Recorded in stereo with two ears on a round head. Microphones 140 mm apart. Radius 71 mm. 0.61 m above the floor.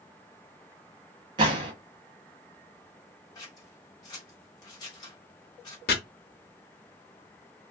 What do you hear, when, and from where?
1.4 s a gunshot: 30° right (ahead or behind), 1.1 m
3.4 s scissors: 25° left (ahead or behind), 1.4 m
5.9 s chopping: 70° left (ahead or behind), 0.8 m